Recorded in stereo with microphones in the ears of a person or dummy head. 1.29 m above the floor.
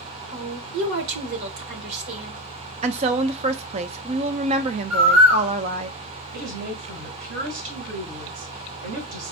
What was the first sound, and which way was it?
A woman speaking, 65° right (ahead or behind).